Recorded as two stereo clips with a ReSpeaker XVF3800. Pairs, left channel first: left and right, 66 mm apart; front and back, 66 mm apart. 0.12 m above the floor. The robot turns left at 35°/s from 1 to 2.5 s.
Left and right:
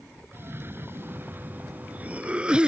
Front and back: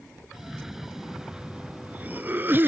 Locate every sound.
0.3 s a cough: 100° right; by 2.7 s 155° right